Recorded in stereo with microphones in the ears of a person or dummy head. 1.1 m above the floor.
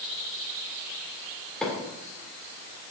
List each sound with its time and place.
1.6 s a microwave: centre (ahead or behind), 3 m